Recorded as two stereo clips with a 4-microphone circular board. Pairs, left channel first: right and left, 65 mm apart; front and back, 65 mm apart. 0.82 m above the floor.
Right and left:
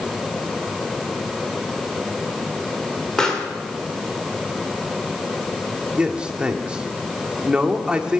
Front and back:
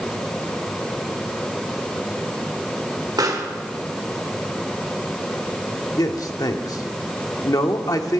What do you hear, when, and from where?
3.2 s a pop: 170° right, 2.5 m
6.0 s a man speaking: 15° left, 1.5 m